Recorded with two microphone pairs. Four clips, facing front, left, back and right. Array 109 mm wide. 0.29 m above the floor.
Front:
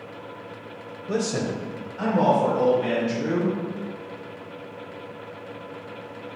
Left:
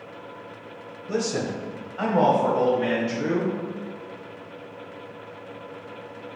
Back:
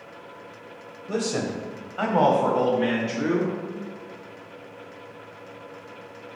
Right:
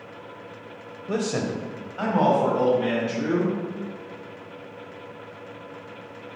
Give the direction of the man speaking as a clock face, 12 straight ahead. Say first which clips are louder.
Even, front 1 dB; 2 o'clock.